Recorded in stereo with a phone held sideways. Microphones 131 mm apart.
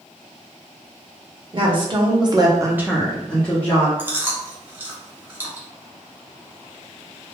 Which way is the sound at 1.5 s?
40° right (ahead or behind).